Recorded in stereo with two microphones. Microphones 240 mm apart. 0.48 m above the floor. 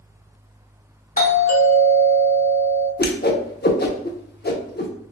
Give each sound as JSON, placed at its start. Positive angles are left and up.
{"t": 1.2, "sound": "a doorbell", "side_deg": 35, "distance_m": 1.3}
{"t": 3.0, "sound": "a whoosh", "side_deg": 40, "distance_m": 0.7}